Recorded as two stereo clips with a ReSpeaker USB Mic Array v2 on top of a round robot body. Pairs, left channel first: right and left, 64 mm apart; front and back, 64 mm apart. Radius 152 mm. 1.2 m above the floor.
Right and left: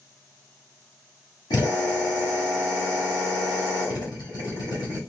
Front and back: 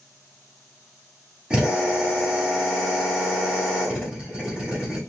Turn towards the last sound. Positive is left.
turn(degrees=-105)